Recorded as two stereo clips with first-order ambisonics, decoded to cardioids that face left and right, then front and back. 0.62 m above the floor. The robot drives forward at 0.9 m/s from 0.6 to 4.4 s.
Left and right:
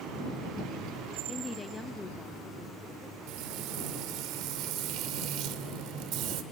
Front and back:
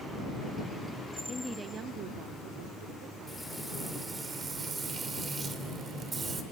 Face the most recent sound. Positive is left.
turn(degrees=-110)